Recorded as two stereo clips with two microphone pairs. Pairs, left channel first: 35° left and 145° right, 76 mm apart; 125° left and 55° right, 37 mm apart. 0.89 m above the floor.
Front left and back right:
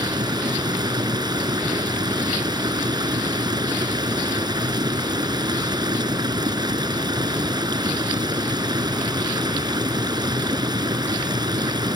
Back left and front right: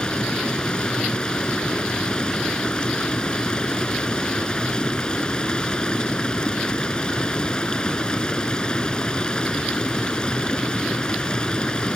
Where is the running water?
165° right.